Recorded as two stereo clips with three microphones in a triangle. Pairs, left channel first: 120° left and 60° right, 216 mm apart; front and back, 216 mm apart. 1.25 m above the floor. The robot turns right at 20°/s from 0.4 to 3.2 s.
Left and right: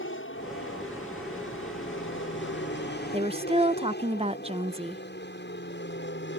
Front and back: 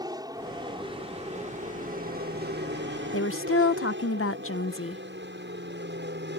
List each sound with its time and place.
0.0 s an aircraft: 110° left; by 6.4 s 150° left
3.1 s a woman speaking: straight ahead